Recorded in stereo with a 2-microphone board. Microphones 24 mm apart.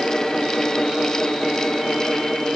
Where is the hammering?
I don't hear hammering.